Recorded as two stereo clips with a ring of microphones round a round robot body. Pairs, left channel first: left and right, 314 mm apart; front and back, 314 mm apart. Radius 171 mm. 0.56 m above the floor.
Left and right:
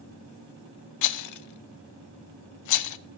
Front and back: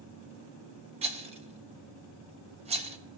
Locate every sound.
1.0 s a rattle: 110° left, 0.5 m